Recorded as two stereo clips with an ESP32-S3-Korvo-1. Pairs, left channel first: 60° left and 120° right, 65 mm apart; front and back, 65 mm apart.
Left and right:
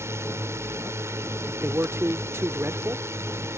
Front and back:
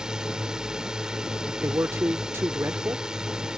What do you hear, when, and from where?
0.0 s a drone: 105° right
1.6 s a man speaking: 150° right